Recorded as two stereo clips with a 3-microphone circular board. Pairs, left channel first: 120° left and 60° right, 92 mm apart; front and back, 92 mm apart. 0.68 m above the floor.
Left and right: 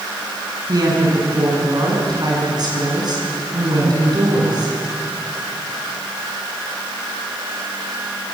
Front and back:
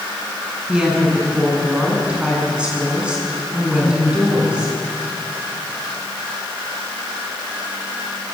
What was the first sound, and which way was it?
A woman speaking, 100° right.